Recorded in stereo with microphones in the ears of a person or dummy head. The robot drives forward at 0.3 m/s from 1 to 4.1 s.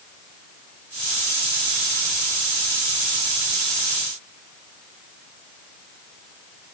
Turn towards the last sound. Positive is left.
No sound to turn to.